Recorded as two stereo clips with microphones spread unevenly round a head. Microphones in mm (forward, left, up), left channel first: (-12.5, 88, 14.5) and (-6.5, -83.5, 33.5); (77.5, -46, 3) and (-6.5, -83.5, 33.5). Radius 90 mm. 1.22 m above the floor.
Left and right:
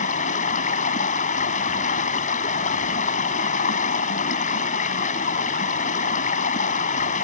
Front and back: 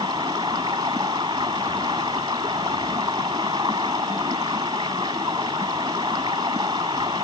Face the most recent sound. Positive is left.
turn(degrees=140)